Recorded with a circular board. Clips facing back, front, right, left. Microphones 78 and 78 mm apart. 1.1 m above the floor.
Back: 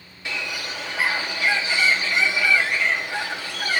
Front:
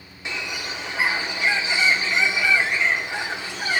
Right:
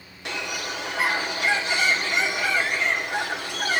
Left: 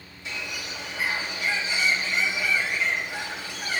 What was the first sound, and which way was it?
A bird, 70° right.